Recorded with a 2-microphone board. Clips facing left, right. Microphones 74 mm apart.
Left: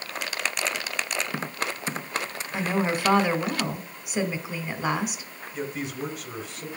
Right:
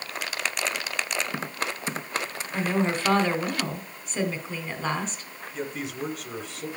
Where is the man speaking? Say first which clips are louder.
Left 1 dB; centre (ahead or behind), 3.5 m.